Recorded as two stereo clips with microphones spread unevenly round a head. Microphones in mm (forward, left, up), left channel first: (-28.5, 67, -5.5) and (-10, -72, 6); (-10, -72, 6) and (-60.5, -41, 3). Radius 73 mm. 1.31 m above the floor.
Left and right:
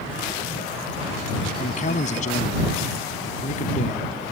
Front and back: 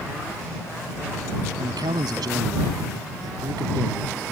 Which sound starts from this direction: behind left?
A man speaking, at 1.6 s.